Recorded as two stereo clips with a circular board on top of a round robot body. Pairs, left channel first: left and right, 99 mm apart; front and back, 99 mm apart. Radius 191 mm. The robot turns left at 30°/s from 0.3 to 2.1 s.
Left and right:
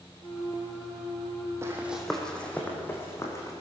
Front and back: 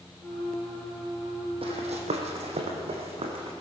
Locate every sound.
1.6 s running footsteps: 155° right, 1.6 m; by 3.5 s 150° left, 2.5 m